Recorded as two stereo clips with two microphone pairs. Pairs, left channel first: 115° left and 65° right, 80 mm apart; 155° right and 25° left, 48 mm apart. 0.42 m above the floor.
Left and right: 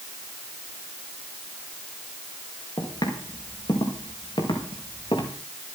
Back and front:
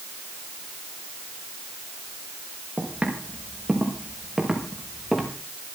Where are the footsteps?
90° left, 6 m; by 5.3 s 115° left, 5.5 m.